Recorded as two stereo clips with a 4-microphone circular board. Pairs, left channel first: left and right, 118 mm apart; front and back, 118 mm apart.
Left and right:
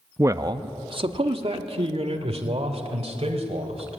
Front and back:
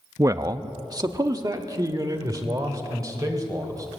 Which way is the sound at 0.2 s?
140° right.